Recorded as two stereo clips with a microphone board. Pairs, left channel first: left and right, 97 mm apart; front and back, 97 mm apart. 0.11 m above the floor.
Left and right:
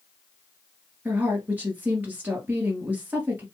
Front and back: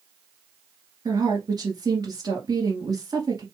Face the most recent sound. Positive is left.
turn(degrees=-155)